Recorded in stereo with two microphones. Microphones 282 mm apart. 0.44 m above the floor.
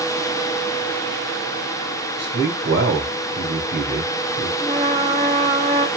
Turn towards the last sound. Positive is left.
turn(degrees=-20)  # may be behind; listen again after turning